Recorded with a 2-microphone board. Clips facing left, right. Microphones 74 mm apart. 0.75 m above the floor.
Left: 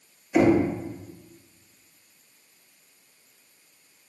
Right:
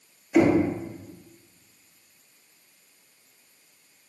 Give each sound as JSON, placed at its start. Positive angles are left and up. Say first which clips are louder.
{"t": 0.3, "sound": "knocking", "louder": "even", "side_deg": 0, "distance_m": 0.6}